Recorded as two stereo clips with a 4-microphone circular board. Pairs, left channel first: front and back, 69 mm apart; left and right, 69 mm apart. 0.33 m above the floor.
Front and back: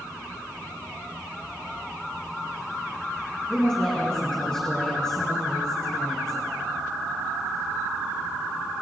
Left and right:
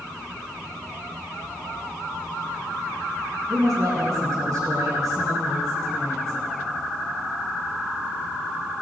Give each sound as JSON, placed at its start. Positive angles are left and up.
{"t": 3.5, "sound": "a woman speaking", "azimuth_deg": -80, "distance_m": 4.0}